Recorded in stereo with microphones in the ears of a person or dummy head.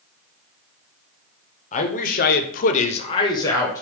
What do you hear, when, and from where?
1.7 s a man speaking: 35° left (ahead or behind), 0.7 m; by 3.8 s 15° left (ahead or behind), 0.9 m